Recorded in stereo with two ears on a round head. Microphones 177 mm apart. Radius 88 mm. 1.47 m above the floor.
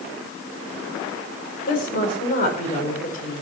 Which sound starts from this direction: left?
A woman speaking, at 1.7 s.